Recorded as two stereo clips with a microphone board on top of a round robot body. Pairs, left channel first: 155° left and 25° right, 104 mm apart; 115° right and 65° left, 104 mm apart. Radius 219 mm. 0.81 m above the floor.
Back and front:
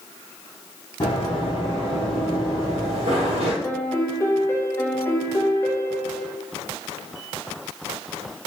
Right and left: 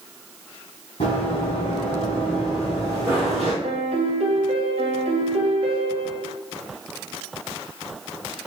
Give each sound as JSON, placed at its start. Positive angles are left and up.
{"t": 1.0, "sound": "running footsteps", "azimuth_deg": -145, "distance_m": 1.6}
{"t": 3.6, "sound": "a piano", "azimuth_deg": 90, "distance_m": 0.7}